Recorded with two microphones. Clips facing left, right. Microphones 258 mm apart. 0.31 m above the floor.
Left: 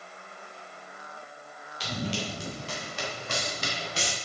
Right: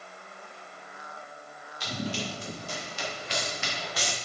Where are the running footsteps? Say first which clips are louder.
Left 1 dB; 80° left, 4 m; by 4.2 s 20° left (ahead or behind), 3 m.